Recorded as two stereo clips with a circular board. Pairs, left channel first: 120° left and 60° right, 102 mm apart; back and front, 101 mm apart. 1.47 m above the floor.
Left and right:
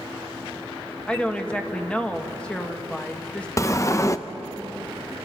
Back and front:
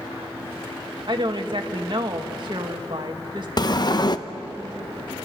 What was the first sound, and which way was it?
A woman speaking, 40° left.